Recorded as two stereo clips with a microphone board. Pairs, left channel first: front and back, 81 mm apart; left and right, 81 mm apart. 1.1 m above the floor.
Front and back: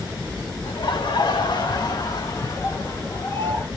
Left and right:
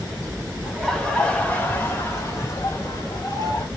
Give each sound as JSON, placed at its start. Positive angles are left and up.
{"t": 0.6, "sound": "laughter", "azimuth_deg": 5, "distance_m": 1.8}